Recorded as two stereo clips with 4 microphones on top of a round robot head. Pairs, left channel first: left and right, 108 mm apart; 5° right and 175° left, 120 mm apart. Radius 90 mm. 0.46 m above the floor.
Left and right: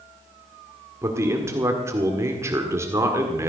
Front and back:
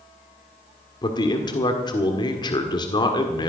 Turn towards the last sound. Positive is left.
turn(degrees=-35)